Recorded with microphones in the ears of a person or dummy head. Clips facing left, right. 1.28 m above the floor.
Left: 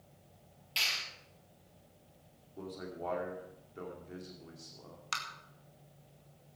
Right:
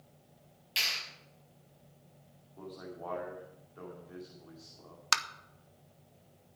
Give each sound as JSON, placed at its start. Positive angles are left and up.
{"t": 0.8, "sound": "a clap", "side_deg": -15, "distance_m": 6.5}
{"t": 2.6, "sound": "a man speaking", "side_deg": 30, "distance_m": 2.5}
{"t": 5.1, "sound": "tapping", "side_deg": -70, "distance_m": 0.7}